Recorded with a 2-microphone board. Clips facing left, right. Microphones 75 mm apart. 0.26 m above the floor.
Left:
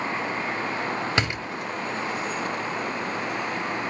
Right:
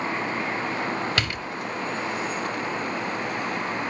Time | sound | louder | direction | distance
1.2 | a door slam | left 2 dB | 20° left (ahead or behind) | 1.0 m